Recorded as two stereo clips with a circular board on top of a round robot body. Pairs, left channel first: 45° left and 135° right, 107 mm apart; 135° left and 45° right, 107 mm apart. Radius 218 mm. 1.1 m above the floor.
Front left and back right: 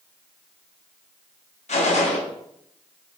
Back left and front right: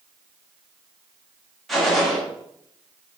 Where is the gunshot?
45° left, 1.7 m.